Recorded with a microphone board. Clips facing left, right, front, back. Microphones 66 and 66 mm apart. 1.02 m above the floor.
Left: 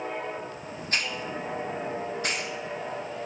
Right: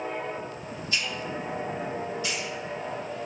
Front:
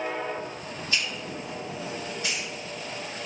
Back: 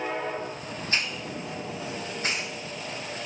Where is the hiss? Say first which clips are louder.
Left 1 dB, even; 130° left, 0.5 m.